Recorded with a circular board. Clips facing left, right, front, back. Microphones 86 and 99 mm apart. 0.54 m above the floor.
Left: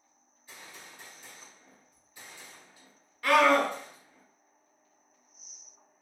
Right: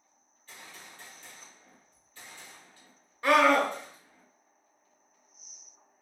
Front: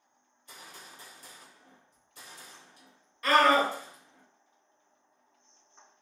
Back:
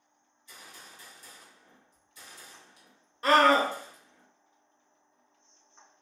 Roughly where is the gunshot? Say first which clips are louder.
Even, front 1 dB; ahead.